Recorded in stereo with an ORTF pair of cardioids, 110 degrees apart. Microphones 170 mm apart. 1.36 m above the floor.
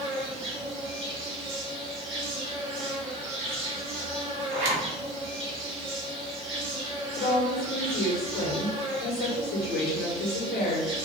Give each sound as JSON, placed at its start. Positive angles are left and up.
{"t": 0.0, "sound": "an insect", "azimuth_deg": -35, "distance_m": 1.2}
{"t": 4.5, "sound": "a zipper", "azimuth_deg": -45, "distance_m": 1.0}
{"t": 7.2, "sound": "a woman speaking", "azimuth_deg": 65, "distance_m": 1.1}